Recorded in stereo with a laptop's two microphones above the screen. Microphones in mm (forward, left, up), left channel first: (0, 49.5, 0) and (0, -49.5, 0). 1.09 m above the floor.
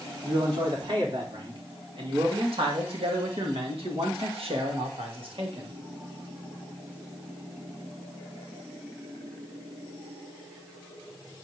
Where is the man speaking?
50° right (ahead or behind), 3 m; by 5.7 s 55° right (ahead or behind), 1.4 m.